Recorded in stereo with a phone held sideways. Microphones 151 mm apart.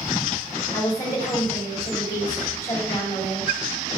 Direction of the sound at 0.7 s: 20° left (ahead or behind).